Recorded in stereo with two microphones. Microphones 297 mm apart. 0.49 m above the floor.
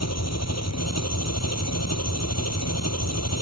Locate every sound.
0.0 s an engine running: 60° left (ahead or behind)